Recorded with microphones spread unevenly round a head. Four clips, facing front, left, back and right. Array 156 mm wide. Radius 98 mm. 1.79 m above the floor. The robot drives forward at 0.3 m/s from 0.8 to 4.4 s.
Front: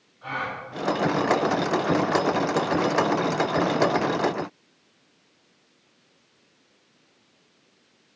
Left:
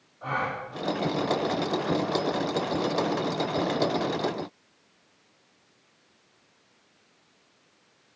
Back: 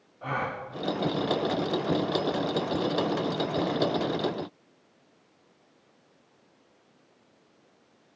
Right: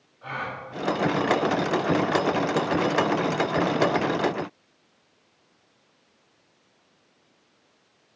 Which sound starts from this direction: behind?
A gasp, at 0.2 s.